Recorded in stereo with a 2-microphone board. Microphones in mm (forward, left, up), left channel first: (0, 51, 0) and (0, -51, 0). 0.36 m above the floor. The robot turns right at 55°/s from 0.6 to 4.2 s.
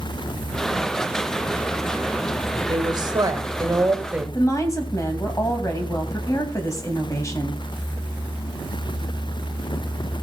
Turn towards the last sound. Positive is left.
turn(degrees=30)  # may be behind; listen again after turning